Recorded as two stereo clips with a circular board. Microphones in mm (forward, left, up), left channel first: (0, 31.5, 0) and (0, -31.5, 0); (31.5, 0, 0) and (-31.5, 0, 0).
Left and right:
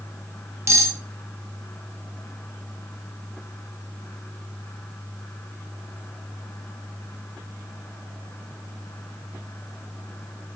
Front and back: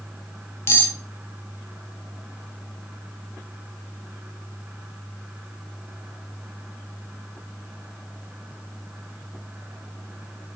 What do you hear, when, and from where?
0.7 s cutlery clinking: 50° right, 0.5 m